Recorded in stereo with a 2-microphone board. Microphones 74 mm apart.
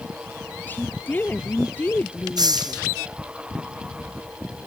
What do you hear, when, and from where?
0.7 s a woman speaking: 25° left (ahead or behind)
2.4 s a hiss: 60° right (ahead or behind)